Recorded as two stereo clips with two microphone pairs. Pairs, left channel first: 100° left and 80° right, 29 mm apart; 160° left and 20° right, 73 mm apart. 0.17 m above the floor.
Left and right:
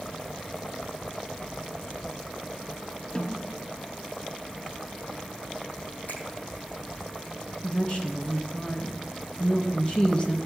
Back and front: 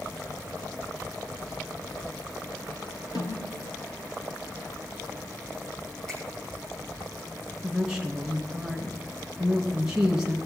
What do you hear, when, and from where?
3.1 s a snare drum: 160° left, 1.6 m
6.1 s a finger snap: 85° left, 5.5 m
7.6 s a woman speaking: 60° left, 1.8 m